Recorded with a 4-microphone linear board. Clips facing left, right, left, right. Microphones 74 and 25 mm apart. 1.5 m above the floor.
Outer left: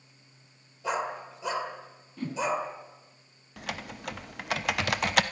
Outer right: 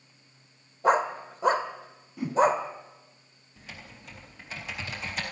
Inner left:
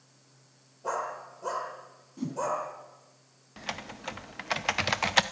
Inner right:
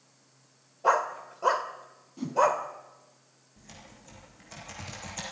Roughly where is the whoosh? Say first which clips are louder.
Outer right 7 dB, inner right 6 dB; centre.